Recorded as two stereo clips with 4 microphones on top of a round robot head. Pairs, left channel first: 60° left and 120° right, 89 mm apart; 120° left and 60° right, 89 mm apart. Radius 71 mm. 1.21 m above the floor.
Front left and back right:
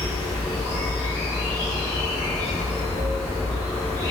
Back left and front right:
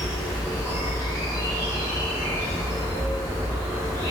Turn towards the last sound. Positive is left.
turn(degrees=90)